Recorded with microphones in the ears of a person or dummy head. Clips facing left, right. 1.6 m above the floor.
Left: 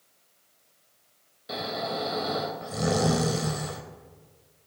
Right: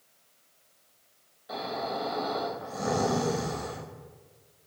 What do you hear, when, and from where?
1.5 s snoring: 45° left (ahead or behind), 2.5 m